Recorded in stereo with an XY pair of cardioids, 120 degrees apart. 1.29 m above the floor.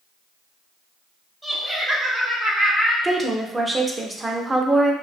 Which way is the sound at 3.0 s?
15° right.